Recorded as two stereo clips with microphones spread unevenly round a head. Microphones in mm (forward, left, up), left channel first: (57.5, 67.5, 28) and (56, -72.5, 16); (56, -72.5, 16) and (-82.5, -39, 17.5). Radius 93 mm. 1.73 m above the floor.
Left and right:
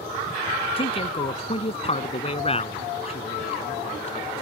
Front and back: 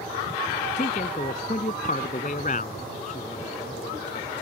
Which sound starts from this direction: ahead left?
A man speaking, at 0.8 s.